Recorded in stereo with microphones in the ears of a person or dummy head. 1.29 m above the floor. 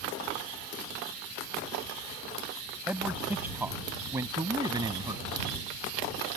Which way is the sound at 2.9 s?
5° right (ahead or behind).